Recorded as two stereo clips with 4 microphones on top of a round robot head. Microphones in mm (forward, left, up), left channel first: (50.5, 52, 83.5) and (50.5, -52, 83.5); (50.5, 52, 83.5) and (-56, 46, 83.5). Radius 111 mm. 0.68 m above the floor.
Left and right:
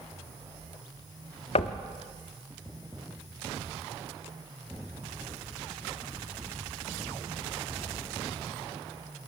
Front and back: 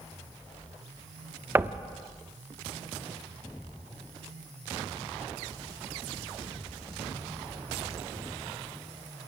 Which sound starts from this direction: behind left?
Knocking, at 1.6 s.